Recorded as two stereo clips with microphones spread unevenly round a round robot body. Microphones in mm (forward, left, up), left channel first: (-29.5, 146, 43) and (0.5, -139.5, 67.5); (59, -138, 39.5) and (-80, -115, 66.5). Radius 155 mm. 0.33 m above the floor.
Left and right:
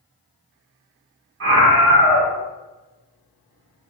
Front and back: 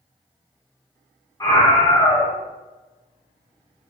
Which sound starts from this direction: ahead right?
A scream, at 1.4 s.